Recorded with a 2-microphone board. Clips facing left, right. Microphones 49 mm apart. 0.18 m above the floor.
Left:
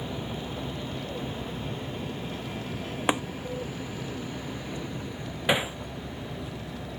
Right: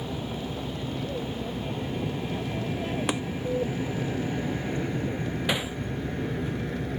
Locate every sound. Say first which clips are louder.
0.0 s an aircraft: right 2 dB; 20° right (ahead or behind); by 7.0 s 60° right (ahead or behind)
3.1 s tapping: left 6 dB; 25° left (ahead or behind)
5.5 s hammering: left 5 dB; 20° left (ahead or behind)